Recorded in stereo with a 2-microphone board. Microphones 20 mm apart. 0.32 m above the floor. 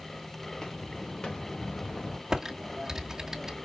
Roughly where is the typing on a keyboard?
Right.